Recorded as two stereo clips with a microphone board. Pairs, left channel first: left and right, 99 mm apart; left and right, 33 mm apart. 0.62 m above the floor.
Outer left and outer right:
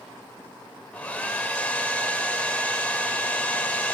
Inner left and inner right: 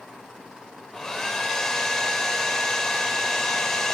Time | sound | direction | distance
0.9 | a hair dryer | 15° left (ahead or behind) | 2 m